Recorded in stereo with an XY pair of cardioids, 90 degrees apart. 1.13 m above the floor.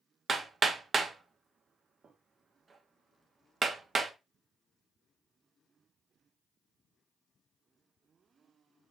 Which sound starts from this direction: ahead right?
Hammering, at 0.3 s.